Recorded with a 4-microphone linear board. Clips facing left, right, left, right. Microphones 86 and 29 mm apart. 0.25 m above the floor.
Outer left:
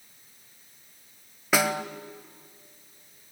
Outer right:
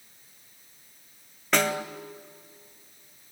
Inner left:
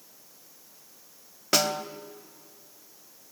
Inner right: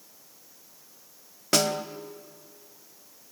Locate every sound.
1.5 s a snare drum: 5° left (ahead or behind), 1.0 m